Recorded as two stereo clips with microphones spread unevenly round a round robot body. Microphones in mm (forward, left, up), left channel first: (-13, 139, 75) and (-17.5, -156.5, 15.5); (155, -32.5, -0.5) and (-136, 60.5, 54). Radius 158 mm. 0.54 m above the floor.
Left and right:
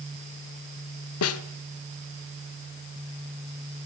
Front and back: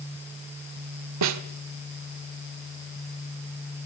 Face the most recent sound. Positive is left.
turn(degrees=130)